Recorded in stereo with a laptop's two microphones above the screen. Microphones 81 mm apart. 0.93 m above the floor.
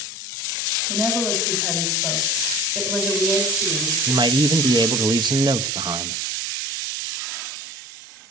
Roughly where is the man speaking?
Right.